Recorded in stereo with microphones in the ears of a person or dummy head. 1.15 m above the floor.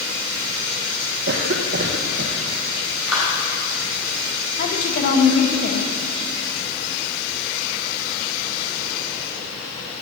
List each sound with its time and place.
1.3 s a cough: 50° right (ahead or behind), 0.7 m
3.1 s a clap: 5° right (ahead or behind), 4.5 m
4.6 s a woman speaking: 40° left (ahead or behind), 1.4 m